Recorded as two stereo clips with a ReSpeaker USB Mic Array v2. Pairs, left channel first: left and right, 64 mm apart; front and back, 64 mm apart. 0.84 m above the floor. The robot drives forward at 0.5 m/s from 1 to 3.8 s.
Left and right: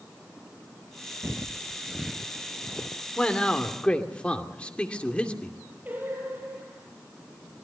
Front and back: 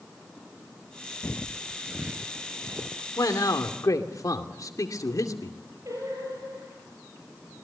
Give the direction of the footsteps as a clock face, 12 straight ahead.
2 o'clock.